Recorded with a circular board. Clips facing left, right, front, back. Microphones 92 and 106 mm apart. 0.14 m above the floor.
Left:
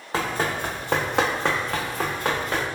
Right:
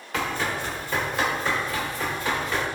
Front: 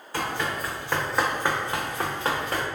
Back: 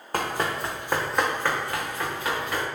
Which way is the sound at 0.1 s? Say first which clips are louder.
Left 2 dB, back 2 dB; 140° left.